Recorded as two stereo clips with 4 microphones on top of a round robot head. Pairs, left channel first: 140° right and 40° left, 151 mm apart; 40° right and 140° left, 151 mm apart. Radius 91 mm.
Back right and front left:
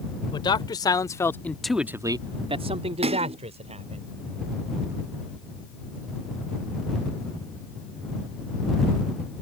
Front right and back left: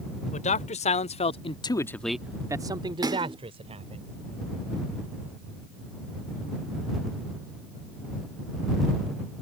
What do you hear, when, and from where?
0.3 s a man speaking: 80° right; by 4.0 s 90° left
3.0 s a splash: 80° left